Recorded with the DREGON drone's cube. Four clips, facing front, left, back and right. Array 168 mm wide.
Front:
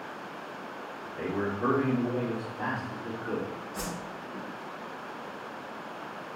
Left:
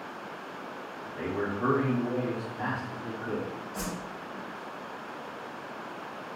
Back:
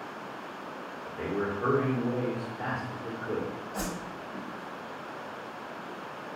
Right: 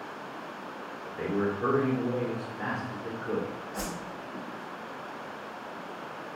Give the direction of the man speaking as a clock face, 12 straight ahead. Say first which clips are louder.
Right 3 dB, even; 10 o'clock.